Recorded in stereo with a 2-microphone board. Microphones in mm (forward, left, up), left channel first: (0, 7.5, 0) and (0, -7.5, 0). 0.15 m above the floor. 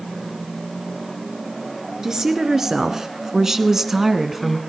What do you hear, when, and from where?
2.0 s a woman speaking: 45° right (ahead or behind), 1.8 m; by 4.6 s 10° right (ahead or behind), 1.2 m